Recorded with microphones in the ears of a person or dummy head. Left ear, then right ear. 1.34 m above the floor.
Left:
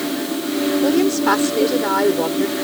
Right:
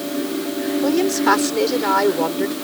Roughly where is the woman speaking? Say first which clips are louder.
Right 1 dB; centre.